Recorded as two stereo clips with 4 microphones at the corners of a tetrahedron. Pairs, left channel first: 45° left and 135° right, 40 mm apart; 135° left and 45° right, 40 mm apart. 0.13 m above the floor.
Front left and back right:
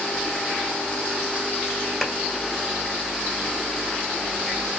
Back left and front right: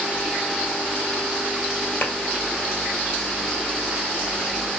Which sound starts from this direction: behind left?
A clap, at 2.0 s.